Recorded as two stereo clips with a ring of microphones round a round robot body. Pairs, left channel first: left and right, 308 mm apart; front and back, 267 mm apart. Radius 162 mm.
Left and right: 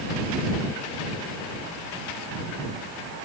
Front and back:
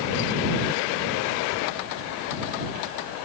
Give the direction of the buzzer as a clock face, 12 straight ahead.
No buzzer in this recording.